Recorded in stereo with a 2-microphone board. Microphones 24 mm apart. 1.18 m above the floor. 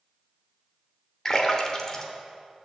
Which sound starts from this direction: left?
A splash, at 1.2 s.